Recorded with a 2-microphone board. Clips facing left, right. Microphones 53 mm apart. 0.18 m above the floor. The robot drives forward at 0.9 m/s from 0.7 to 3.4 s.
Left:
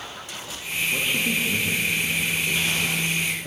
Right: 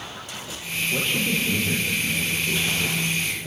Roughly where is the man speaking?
Centre.